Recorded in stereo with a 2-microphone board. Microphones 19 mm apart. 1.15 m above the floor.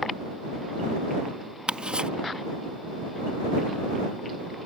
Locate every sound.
1.7 s ticking: 60° right (ahead or behind)